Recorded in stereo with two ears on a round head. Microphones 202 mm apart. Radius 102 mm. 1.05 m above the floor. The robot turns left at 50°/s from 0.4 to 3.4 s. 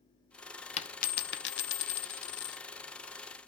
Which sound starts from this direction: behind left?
A dropped coin, at 0.8 s.